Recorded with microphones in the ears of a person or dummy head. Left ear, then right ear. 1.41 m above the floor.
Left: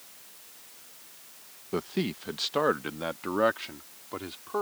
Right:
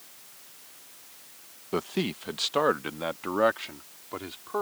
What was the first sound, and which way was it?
A man speaking, 25° right (ahead or behind).